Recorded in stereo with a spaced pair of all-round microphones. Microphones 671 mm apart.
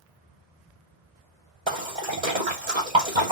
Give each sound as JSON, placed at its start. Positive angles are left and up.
{"t": 1.7, "sound": "a splash", "side_deg": -40, "distance_m": 1.6}